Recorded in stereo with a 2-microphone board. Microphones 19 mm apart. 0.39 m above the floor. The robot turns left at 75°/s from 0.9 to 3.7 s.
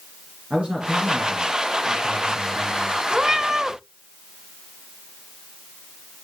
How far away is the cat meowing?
About 0.9 m.